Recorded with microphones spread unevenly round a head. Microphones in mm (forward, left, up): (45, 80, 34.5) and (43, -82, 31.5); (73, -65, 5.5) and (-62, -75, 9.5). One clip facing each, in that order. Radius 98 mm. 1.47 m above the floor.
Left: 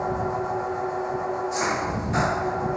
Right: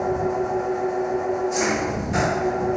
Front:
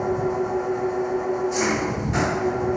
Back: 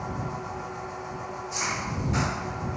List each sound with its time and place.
0.0 s an engine running: 25° right